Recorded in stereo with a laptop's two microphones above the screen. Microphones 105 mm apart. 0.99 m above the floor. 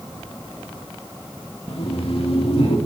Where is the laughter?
65° left (ahead or behind), 1.7 m; by 2.8 s 70° left (ahead or behind), 2.5 m.